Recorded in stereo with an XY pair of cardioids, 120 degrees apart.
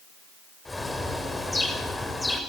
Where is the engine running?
No engine running in this recording.